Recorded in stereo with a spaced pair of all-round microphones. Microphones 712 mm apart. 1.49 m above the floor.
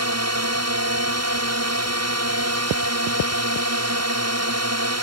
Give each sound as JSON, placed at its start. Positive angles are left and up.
{"t": 0.0, "sound": "a drone", "side_deg": -20}